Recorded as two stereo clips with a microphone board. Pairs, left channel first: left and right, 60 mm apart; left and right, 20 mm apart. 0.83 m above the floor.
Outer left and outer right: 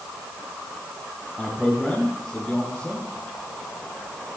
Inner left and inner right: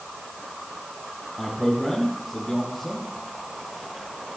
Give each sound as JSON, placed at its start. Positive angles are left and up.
{"t": 1.4, "sound": "a man speaking", "side_deg": 0, "distance_m": 5.5}